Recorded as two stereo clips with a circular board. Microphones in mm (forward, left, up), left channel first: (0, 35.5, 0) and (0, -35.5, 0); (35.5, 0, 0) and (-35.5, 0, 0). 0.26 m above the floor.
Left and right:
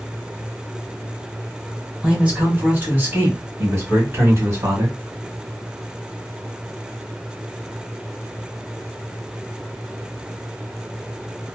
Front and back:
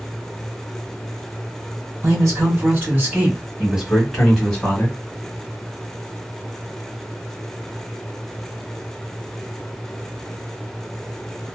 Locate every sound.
2.0 s a man speaking: 155° right, 1.6 m; by 4.9 s 65° right, 1.5 m